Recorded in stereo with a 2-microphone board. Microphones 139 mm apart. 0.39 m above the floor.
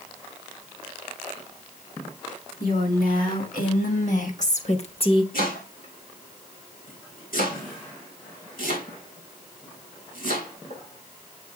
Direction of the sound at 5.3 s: 70° left (ahead or behind).